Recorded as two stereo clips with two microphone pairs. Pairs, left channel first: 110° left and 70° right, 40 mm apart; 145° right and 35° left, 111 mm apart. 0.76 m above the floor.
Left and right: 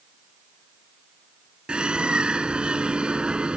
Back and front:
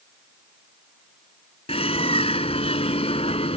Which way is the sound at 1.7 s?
130° right.